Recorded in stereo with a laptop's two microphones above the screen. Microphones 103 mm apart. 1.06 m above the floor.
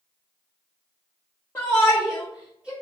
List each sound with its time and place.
1.6 s a shout: 25° left (ahead or behind), 0.8 m; by 2.7 s 10° right (ahead or behind), 1.2 m